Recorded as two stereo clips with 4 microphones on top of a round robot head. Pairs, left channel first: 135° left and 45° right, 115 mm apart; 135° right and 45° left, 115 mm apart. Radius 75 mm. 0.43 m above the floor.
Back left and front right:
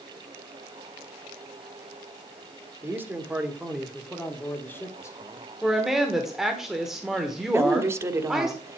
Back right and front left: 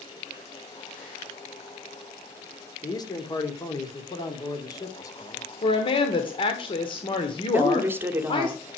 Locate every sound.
2.8 s a man speaking: 105° right, 1.6 m; by 5.4 s 175° left, 1.7 m
5.6 s a woman speaking: 130° right, 1.3 m
7.5 s a woman speaking: 5° right, 1.1 m